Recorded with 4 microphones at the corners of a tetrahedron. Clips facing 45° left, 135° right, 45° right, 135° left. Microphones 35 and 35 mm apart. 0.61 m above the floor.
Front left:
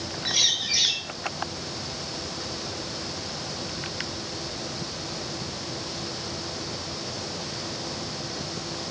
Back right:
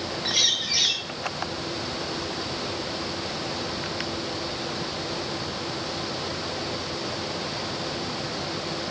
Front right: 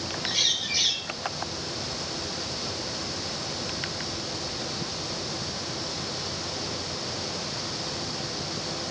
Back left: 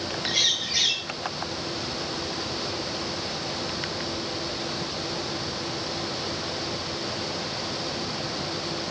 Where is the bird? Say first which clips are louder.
Even, back left 2 dB; 155° left, 3.5 m.